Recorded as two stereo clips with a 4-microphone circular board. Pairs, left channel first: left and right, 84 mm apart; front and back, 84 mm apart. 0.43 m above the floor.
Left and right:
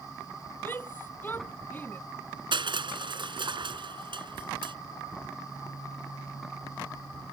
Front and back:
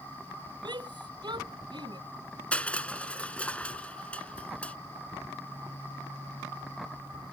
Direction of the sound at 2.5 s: 75° right.